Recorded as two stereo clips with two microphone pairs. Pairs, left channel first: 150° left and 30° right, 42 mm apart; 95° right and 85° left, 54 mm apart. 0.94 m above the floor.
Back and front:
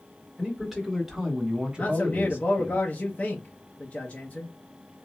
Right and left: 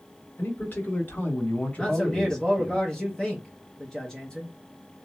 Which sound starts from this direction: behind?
A man speaking, at 1.8 s.